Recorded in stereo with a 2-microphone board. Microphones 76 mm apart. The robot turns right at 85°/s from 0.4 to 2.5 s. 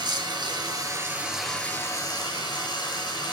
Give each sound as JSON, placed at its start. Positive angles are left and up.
{"t": 0.0, "sound": "running water", "azimuth_deg": -85, "distance_m": 2.0}